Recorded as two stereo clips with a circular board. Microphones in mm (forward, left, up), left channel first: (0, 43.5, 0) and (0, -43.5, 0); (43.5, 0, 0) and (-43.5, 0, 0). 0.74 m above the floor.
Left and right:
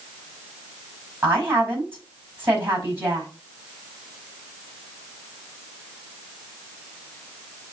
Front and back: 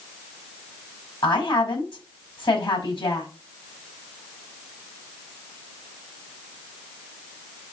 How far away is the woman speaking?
About 5 m.